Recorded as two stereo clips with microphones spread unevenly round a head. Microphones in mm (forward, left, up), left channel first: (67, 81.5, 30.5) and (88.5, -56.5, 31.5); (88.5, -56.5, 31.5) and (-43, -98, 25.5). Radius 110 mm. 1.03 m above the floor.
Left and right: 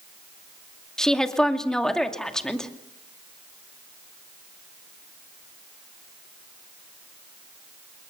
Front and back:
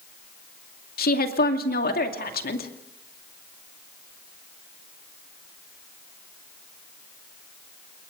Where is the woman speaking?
15° left, 2.5 m.